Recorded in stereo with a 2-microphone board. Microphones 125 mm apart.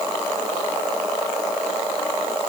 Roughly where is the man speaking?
No man speaking in this recording.